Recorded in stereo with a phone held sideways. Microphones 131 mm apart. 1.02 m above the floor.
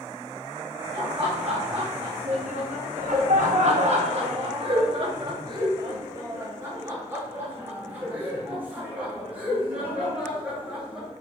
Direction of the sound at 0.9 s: 50° right (ahead or behind).